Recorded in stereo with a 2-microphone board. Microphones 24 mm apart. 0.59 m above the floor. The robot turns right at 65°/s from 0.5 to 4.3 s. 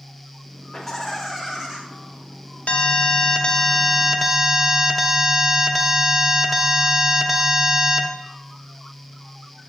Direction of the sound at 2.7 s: 90° left.